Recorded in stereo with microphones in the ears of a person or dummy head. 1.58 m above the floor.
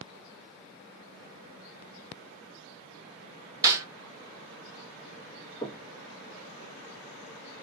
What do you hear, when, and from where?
3.6 s a snare drum: 15° right (ahead or behind), 1.1 m
5.6 s knocking: 25° left (ahead or behind), 1.5 m